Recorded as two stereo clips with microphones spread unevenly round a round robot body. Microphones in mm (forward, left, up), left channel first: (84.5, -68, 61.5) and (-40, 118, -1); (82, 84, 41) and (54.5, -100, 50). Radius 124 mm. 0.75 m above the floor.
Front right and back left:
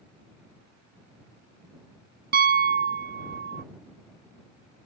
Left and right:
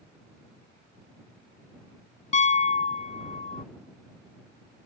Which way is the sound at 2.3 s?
125° left.